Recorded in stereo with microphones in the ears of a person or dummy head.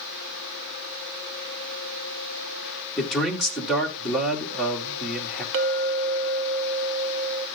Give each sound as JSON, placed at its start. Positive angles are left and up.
{"t": 3.0, "sound": "a man speaking", "side_deg": 5, "distance_m": 3.0}
{"t": 5.5, "sound": "a clink", "side_deg": -60, "distance_m": 0.9}